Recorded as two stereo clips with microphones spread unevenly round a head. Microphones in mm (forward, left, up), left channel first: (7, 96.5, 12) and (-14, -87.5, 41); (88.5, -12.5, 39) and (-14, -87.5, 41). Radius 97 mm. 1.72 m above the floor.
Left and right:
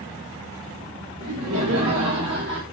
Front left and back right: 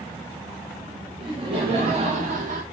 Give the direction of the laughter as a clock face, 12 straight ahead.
3 o'clock.